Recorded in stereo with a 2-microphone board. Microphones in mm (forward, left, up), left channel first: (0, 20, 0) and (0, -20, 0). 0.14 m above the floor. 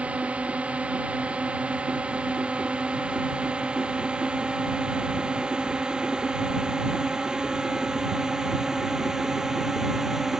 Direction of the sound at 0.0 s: 30° right (ahead or behind).